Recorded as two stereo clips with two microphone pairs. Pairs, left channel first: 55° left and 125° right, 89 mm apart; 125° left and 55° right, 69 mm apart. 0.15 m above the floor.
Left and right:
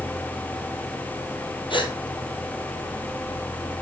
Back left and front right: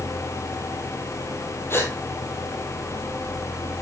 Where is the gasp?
75° left, 2 m.